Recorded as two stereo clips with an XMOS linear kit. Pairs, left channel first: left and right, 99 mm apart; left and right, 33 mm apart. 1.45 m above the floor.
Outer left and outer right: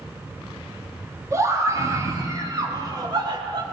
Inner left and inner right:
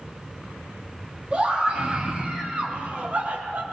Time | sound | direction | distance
1.3 | a scream | 30° right (ahead or behind) | 3 m